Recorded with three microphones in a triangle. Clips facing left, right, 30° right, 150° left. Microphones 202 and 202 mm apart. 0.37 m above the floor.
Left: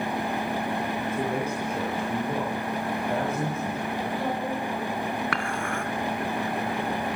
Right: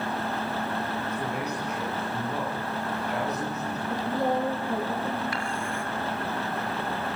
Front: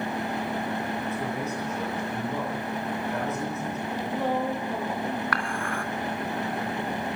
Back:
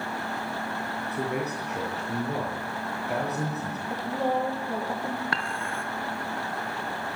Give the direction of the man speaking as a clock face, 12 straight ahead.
8 o'clock.